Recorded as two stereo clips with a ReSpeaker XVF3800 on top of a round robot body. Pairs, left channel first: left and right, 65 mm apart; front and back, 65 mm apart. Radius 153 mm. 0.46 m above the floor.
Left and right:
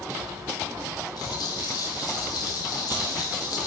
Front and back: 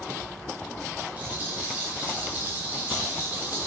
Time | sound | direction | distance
1.2 | a rattle | 115° left | 2.0 m